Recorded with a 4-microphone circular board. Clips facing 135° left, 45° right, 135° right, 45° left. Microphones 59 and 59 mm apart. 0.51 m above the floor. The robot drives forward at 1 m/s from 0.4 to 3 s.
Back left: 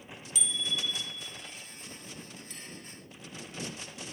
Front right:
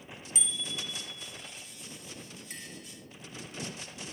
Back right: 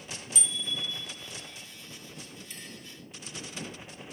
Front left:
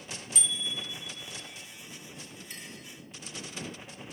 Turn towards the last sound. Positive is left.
turn(degrees=5)